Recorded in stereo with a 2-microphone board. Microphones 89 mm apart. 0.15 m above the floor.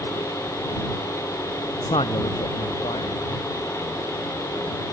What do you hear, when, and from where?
1.9 s a man speaking: 80° left